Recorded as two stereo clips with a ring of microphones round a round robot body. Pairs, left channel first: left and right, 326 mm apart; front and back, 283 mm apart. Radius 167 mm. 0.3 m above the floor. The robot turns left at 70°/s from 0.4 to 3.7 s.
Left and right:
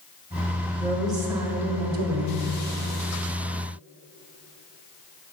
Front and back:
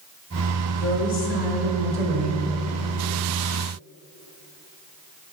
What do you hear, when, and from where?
0.8 s a woman speaking: 20° left, 1.4 m; by 2.5 s 95° right, 1.4 m